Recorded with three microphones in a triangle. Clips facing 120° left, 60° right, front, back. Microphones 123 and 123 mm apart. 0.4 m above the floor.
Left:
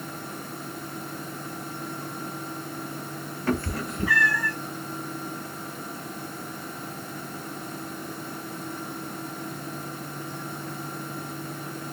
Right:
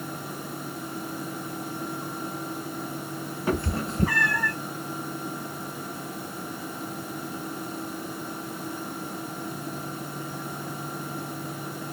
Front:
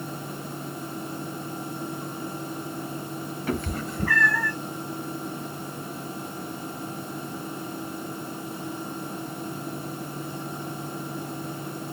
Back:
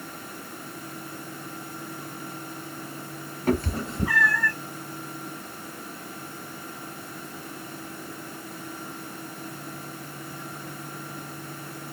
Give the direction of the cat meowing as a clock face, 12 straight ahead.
5 o'clock.